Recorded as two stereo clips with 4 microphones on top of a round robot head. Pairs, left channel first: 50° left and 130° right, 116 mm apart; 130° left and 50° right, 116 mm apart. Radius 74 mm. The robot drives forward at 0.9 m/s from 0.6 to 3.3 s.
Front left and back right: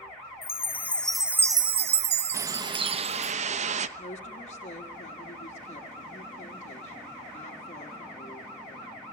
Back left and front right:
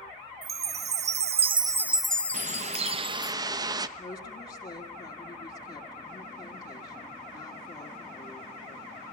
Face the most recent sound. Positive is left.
turn(degrees=85)